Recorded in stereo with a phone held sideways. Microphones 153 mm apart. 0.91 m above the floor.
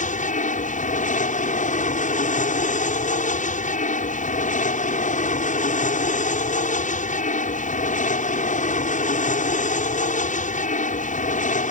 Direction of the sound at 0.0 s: 60° left (ahead or behind).